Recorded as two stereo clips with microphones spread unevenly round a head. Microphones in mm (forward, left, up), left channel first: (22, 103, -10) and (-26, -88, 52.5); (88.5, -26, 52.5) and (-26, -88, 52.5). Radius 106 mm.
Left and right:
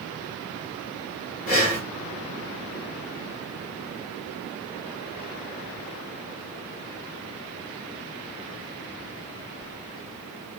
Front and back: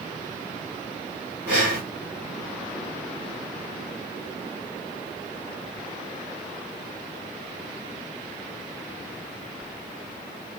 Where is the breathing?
135° left, 3.5 m.